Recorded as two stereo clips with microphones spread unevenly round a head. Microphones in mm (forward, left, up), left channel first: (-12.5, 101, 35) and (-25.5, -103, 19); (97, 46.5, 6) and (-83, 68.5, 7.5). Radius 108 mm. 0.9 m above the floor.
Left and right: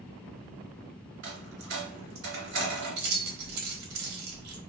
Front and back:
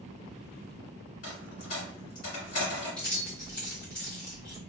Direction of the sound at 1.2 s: 60° right.